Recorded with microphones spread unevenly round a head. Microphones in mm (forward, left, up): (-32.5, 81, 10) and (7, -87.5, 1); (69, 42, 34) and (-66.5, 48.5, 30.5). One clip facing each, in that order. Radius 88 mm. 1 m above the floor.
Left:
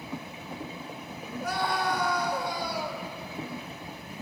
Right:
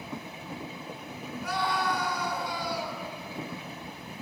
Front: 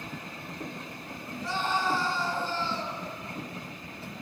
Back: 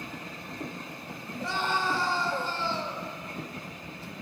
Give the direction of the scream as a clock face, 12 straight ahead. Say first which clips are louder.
Left 1 dB, even; 7 o'clock.